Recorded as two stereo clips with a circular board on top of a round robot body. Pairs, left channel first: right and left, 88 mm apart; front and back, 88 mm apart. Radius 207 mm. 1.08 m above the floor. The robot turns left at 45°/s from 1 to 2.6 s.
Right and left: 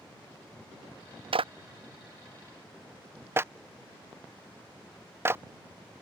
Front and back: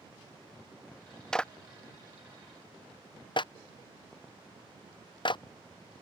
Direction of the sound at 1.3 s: 85° left.